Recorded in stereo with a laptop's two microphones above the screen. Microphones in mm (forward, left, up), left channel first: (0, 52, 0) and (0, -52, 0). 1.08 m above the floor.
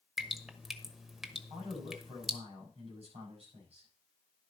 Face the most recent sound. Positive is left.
turn(degrees=-75)  # may be behind; listen again after turning